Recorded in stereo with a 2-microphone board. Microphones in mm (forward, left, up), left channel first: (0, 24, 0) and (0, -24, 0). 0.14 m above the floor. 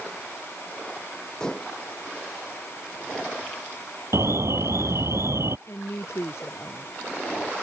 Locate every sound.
1.4 s dishes clattering: 15° left (ahead or behind)
4.1 s an alarm: 70° right (ahead or behind)
5.7 s a woman speaking: 65° left (ahead or behind)